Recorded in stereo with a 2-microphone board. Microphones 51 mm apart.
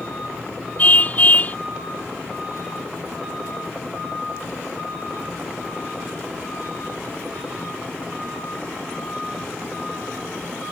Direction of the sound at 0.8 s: 30° left (ahead or behind).